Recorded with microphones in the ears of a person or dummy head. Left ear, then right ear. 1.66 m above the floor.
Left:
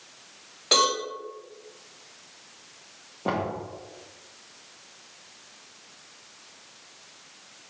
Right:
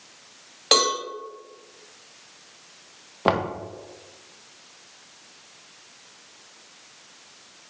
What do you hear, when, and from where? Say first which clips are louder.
0.7 s a cowbell: right 2 dB; 30° right (ahead or behind), 2 m
3.2 s knocking: right 6 dB; 50° right (ahead or behind), 0.6 m